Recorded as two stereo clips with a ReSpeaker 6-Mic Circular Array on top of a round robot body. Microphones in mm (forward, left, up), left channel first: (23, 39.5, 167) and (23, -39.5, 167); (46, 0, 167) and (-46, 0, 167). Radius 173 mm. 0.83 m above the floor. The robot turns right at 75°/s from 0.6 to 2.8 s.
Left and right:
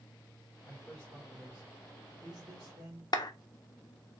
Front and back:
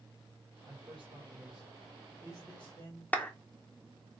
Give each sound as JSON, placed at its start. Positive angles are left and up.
{"t": 0.7, "sound": "a man speaking", "azimuth_deg": 145, "distance_m": 1.7}
{"t": 3.1, "sound": "a clap", "azimuth_deg": 70, "distance_m": 1.0}